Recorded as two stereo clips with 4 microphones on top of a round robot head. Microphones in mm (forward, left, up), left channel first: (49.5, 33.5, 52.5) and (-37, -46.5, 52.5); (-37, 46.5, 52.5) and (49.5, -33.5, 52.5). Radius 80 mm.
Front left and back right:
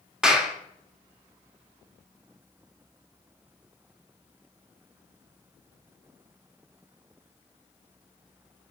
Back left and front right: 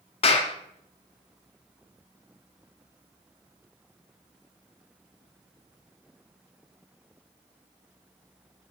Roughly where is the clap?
Behind left.